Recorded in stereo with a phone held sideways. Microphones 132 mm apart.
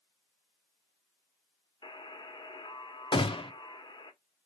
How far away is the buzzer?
About 1.0 m.